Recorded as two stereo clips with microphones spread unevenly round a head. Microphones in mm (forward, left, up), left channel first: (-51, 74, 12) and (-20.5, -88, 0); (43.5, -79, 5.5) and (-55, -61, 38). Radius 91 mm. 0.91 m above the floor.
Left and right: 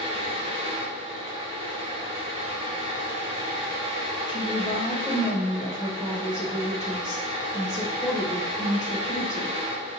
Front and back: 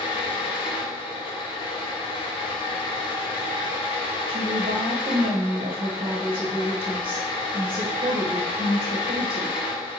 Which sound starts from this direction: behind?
A woman speaking, at 4.3 s.